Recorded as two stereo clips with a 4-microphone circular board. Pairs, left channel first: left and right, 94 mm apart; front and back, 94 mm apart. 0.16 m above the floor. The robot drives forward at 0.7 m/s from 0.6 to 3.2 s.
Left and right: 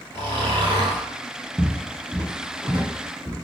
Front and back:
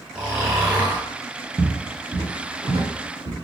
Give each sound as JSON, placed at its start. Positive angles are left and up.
{"t": 0.1, "sound": "snoring", "azimuth_deg": -105, "distance_m": 1.5}
{"t": 1.6, "sound": "footsteps", "azimuth_deg": -165, "distance_m": 1.0}